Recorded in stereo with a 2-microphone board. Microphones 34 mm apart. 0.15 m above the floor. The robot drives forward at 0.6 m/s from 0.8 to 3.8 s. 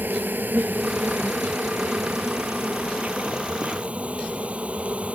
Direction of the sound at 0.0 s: 65° right (ahead or behind).